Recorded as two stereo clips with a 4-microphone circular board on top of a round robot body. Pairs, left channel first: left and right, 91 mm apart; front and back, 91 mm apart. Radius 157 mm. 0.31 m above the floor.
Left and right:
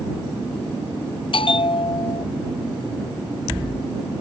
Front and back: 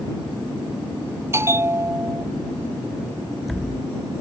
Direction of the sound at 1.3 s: 115° left.